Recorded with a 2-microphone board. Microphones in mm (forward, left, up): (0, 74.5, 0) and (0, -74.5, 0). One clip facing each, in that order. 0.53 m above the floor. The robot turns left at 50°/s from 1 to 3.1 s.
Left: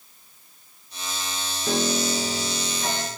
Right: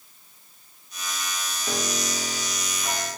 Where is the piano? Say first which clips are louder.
Left 6 dB; 120° left, 2.5 m; by 3.1 s 50° left, 2.5 m.